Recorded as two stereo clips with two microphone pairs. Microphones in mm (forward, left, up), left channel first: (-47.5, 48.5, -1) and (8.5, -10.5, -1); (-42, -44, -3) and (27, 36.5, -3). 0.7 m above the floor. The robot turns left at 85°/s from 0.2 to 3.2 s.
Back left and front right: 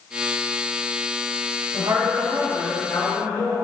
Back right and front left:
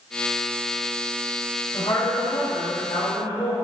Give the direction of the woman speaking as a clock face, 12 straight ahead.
2 o'clock.